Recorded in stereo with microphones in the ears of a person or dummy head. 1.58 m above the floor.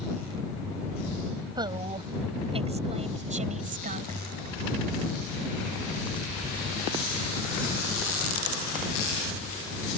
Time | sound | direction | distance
1.6 | a woman speaking | 20° right (ahead or behind) | ?